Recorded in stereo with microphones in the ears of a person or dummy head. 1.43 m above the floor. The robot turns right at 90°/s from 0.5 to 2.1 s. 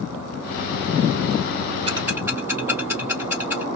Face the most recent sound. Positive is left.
turn(degrees=-5)  # may be behind; listen again after turning